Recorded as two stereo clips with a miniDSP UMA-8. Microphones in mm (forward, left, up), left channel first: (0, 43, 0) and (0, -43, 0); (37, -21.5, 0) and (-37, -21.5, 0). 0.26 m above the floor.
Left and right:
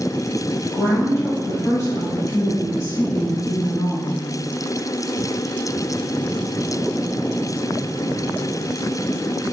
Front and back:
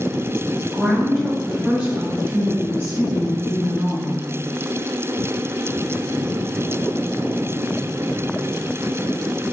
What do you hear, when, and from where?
0.7 s a woman speaking: 75° left, 1.3 m; by 4.3 s 145° left, 2.5 m